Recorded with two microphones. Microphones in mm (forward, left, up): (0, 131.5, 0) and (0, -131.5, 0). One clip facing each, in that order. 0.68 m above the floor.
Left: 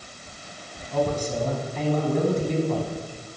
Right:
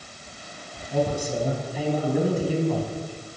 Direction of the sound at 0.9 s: 10° right (ahead or behind).